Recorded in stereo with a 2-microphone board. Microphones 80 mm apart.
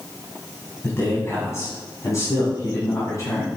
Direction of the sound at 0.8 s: 35° left (ahead or behind).